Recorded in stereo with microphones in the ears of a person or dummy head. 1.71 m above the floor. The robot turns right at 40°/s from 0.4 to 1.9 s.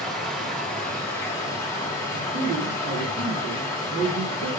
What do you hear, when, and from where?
0.0 s running water: 5° left (ahead or behind), 0.8 m; by 4.6 s 20° left (ahead or behind), 0.8 m
2.1 s a man speaking: 65° right (ahead or behind), 1.6 m